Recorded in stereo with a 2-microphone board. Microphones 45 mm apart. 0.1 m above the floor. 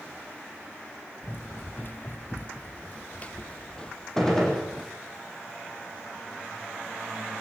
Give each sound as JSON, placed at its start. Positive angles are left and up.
{"t": 1.2, "sound": "running footsteps", "side_deg": 50, "distance_m": 2.5}
{"t": 4.2, "sound": "a gunshot", "side_deg": 10, "distance_m": 5.0}